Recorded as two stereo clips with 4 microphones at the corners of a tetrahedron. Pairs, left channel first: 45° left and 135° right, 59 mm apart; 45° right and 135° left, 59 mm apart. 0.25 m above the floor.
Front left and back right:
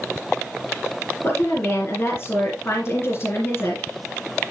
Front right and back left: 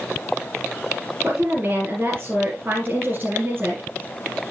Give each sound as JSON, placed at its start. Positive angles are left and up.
{"t": 1.2, "sound": "a woman speaking", "azimuth_deg": 85, "distance_m": 3.0}